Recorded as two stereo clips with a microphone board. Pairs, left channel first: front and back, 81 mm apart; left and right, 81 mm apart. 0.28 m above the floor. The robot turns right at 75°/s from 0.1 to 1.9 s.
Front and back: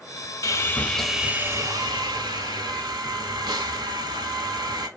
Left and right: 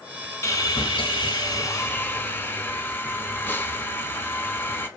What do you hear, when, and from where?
0.4 s sawing: 40° left, 0.5 m; by 4.9 s 150° left, 0.5 m